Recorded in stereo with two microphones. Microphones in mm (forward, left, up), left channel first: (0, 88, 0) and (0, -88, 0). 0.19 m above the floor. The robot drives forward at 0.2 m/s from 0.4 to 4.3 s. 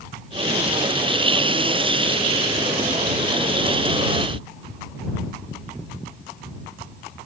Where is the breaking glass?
No breaking glass in this recording.